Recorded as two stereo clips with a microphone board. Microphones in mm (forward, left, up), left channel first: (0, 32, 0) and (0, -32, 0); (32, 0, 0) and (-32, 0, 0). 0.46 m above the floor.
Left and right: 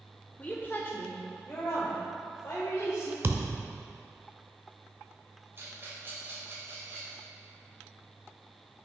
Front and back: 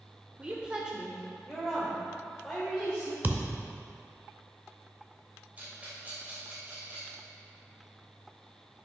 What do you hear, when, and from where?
0.4 s a woman speaking: 130° left, 0.8 m; by 3.1 s 85° left, 1.8 m
3.2 s a thud: 125° right, 0.7 m
5.6 s a rattle: 125° right, 2.5 m